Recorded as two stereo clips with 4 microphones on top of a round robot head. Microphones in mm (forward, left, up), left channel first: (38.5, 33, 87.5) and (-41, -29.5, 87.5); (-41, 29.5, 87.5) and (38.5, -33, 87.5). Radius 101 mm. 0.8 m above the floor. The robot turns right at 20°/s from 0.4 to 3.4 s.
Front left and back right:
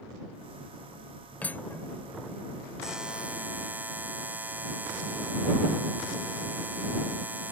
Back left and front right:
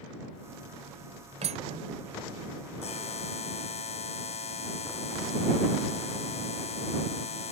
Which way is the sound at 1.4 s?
40° right.